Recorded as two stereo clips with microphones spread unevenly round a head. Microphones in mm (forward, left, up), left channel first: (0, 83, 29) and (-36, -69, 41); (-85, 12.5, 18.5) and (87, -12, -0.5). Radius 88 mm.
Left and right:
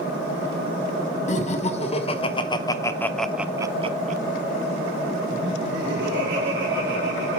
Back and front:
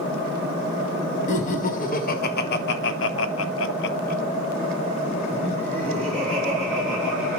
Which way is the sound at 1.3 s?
120° left.